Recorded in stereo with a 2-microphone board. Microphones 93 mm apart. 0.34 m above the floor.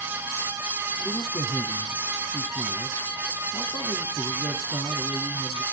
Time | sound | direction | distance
1.0 | a man speaking | 35° left (ahead or behind) | 2.5 m